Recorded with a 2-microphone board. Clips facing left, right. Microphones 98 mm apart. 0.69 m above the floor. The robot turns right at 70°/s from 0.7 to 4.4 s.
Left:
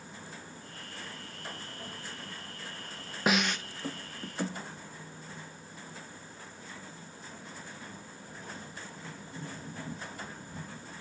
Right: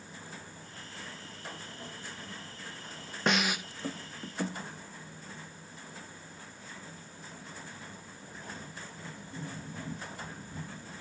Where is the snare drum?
5° left (ahead or behind), 0.7 m; by 3.6 s 15° right (ahead or behind), 0.7 m.